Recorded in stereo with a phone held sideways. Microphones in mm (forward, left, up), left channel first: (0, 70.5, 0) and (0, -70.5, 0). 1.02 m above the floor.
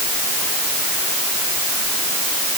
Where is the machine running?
No machine running in this recording.